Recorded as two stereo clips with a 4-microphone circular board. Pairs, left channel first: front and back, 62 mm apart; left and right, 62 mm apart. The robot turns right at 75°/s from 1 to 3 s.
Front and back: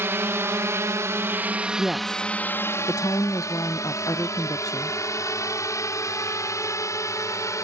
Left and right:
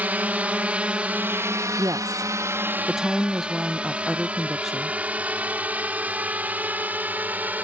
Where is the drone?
145° right; by 7.6 s 30° right.